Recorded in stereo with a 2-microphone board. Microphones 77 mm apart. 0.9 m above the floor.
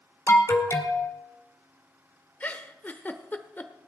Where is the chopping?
I don't hear chopping.